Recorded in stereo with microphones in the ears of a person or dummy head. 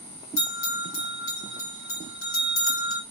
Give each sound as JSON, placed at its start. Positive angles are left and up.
{"t": 0.4, "sound": "a bell", "side_deg": 75, "distance_m": 2.5}